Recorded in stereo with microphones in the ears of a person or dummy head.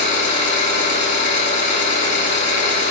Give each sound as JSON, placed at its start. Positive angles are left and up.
{"t": 0.0, "sound": "an engine running", "side_deg": -50, "distance_m": 1.2}